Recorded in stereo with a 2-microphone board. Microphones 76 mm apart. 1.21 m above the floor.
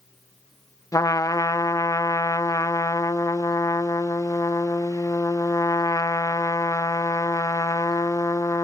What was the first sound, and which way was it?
A trumpet, 50° left (ahead or behind).